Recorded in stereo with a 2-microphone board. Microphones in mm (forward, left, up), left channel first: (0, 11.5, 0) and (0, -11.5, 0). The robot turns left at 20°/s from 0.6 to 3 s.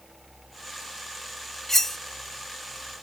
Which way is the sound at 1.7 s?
15° left (ahead or behind).